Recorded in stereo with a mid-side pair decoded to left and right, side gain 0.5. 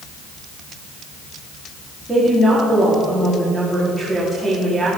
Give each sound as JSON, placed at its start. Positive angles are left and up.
{"t": 2.1, "sound": "a woman speaking", "azimuth_deg": 5, "distance_m": 4.5}